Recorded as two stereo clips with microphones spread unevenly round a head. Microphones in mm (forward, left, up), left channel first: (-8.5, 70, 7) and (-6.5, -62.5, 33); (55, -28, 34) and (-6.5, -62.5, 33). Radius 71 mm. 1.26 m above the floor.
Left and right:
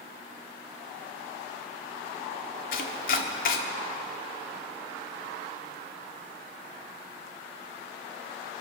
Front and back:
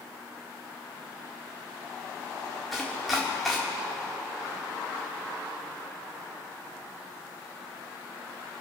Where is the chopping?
120° left, 1.4 m.